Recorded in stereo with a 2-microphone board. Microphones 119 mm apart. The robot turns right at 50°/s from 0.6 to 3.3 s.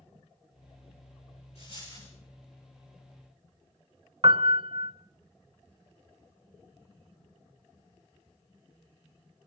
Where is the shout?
No shout in this recording.